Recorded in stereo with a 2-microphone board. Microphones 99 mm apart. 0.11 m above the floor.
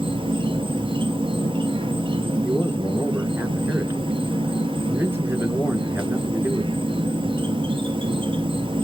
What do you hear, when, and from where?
0.0 s an insect: 60° right (ahead or behind), 0.8 m
2.4 s a man speaking: 20° right (ahead or behind), 1.4 m